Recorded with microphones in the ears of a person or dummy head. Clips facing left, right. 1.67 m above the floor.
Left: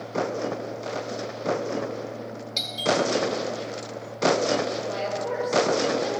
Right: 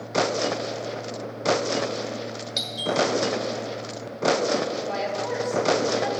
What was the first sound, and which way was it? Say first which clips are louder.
A doorbell: left 3 dB; 5° right (ahead or behind).